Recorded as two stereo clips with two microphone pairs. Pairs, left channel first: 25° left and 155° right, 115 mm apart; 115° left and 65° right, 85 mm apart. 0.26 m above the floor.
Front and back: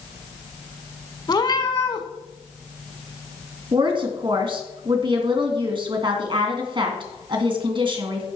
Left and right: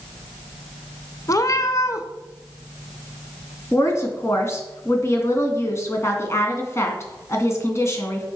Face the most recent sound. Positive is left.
turn(degrees=170)